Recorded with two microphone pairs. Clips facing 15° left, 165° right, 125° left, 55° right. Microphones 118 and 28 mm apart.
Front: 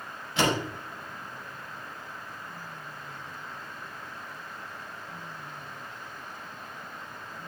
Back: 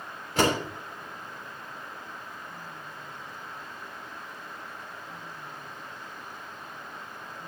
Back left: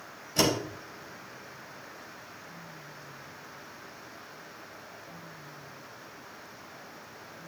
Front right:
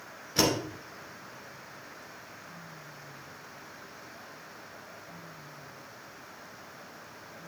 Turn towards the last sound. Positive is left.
turn(degrees=-120)